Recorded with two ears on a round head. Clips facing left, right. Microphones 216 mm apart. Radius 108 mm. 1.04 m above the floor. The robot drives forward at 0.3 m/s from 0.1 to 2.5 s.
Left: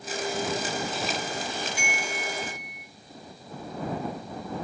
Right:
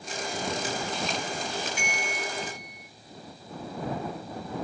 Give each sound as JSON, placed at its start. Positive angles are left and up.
{"t": 1.8, "sound": "a bell", "side_deg": -20, "distance_m": 3.5}